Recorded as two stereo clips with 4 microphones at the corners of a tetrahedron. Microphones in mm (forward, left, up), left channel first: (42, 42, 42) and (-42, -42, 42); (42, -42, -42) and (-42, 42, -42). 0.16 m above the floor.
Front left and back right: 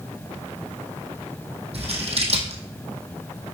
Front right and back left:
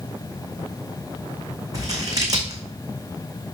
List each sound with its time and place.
1.7 s scissors: 165° right, 2 m